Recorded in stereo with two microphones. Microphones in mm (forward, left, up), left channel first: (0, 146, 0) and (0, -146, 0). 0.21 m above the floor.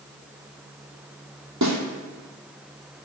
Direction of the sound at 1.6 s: 70° right (ahead or behind).